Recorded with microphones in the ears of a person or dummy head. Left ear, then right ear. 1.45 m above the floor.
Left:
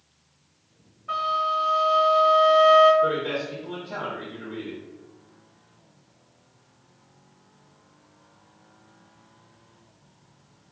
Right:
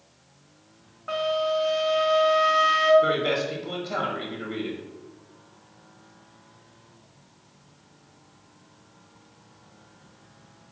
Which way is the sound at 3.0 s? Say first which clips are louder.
Right 1 dB; 50° right (ahead or behind).